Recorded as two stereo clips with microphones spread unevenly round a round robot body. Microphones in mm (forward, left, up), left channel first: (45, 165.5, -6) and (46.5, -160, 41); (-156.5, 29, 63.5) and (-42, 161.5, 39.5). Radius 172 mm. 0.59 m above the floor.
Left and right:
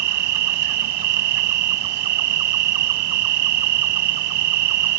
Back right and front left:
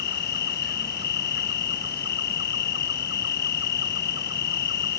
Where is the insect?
80° right.